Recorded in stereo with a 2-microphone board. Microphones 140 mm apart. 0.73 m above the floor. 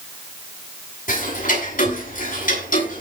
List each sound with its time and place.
1.1 s ticking: 70° left (ahead or behind), 7 m